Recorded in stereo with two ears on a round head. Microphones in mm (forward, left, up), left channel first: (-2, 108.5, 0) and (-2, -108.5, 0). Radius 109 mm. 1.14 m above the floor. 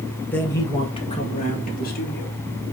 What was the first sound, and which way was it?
A man speaking, 5° left (ahead or behind).